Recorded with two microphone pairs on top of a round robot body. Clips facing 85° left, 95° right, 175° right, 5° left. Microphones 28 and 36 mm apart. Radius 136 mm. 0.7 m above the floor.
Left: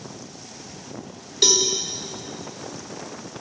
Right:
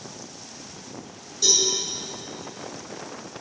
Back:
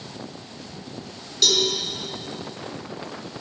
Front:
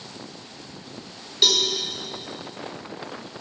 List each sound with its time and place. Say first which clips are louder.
1.4 s a cowbell: left 3 dB, even; 75° left, 1.3 m